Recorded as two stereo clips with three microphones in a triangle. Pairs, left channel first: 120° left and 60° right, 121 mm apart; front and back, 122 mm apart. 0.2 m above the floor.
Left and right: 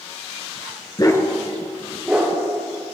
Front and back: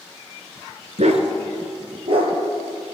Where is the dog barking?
170° left, 1.1 m; by 2.9 s 135° right, 2.5 m.